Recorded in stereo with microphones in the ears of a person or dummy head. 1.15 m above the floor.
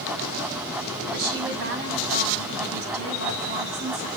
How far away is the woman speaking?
About 4.5 m.